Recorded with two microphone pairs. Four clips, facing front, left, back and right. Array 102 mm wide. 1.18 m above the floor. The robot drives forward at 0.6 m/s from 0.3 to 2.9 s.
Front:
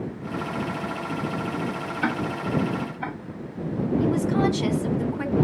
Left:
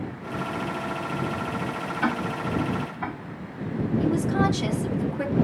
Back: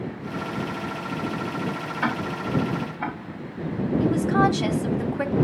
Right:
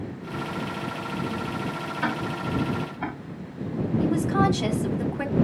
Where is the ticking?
175° left, 6 m.